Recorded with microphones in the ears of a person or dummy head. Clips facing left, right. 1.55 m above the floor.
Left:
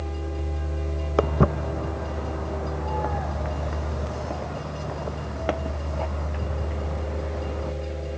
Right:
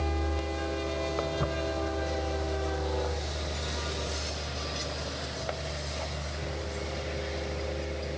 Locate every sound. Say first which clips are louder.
1.2 s footsteps: left 8 dB; 75° left (ahead or behind); by 7.7 s 60° left (ahead or behind)